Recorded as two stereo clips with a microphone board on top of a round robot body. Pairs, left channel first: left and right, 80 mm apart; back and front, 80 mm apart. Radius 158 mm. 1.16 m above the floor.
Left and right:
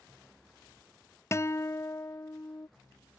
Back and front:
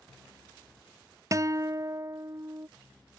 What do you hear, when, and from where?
1.3 s a guitar: 40° left